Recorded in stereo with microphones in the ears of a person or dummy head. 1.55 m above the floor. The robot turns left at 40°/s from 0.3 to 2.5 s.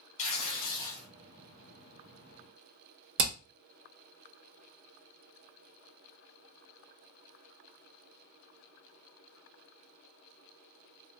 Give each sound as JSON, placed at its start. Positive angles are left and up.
{"t": 0.2, "sound": "tearing paper", "azimuth_deg": 40, "distance_m": 1.0}
{"t": 3.2, "sound": "hammering", "side_deg": -45, "distance_m": 0.8}